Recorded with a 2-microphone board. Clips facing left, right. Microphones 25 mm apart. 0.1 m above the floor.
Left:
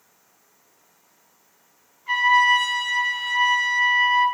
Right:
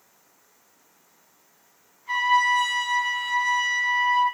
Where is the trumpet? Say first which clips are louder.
Left 4 dB; 30° left (ahead or behind), 1.3 m.